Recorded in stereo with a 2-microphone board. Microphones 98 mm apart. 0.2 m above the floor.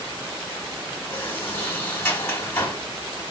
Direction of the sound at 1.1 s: 25° left (ahead or behind).